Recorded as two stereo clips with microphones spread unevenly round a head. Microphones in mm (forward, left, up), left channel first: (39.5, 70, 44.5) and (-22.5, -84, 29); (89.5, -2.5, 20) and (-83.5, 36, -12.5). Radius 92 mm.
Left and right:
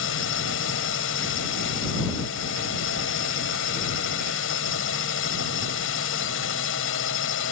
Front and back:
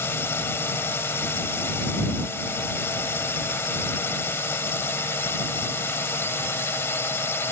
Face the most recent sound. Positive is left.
turn(degrees=65)